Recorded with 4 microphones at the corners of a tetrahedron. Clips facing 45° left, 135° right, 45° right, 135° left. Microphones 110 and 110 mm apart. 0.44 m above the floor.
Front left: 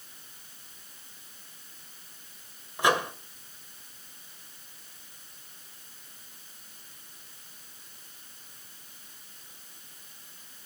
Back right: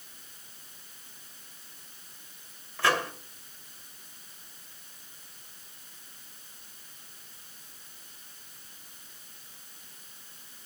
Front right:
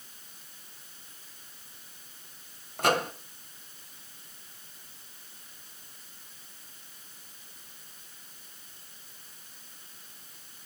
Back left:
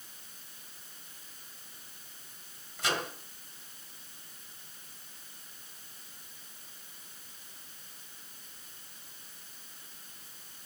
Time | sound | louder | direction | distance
2.8 | a microwave | front left 2 dB, front right 8 dB | 25° right | 1.6 m